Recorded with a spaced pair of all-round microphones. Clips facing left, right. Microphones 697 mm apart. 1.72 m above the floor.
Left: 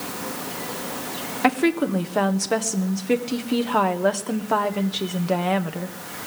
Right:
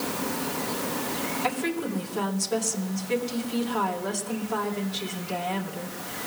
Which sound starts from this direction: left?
A woman speaking, at 1.4 s.